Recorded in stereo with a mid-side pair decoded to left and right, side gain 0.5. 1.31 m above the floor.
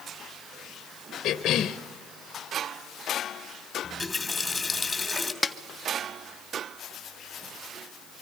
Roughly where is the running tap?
Ahead.